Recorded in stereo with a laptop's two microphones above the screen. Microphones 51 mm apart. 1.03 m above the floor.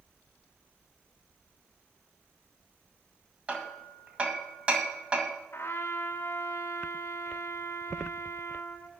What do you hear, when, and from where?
3.5 s hammering: 25° right (ahead or behind), 2 m
5.5 s a trumpet: 50° left (ahead or behind), 0.7 m